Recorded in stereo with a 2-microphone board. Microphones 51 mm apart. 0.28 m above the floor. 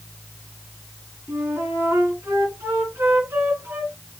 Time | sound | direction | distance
1.3 | a flute | 55° right (ahead or behind) | 2.5 m